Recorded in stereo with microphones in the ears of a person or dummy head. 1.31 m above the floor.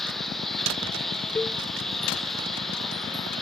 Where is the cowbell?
5° left (ahead or behind).